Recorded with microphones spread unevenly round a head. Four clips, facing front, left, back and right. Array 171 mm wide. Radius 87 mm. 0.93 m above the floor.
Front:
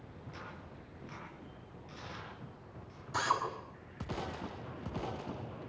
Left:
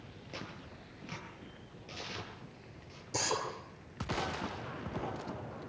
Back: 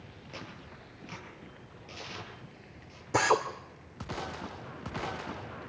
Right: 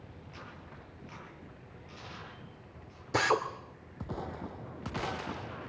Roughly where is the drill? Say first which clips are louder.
Right 7 dB, back 7 dB; behind right.